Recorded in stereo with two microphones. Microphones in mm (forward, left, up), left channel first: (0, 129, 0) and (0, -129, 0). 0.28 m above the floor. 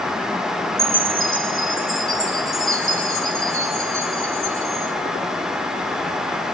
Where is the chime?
55° right (ahead or behind), 4 m.